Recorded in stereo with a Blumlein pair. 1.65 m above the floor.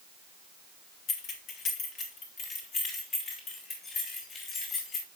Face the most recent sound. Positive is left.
turn(degrees=25)